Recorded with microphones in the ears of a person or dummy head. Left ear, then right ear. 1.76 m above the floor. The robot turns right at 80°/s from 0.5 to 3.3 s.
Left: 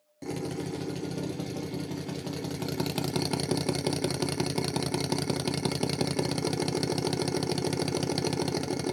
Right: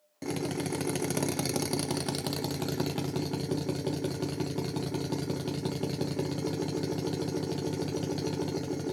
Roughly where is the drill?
Behind.